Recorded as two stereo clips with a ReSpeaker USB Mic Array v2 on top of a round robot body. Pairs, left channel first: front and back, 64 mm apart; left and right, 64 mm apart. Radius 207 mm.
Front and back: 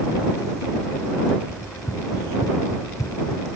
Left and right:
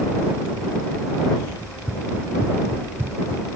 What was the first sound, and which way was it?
Running footsteps, 35° right.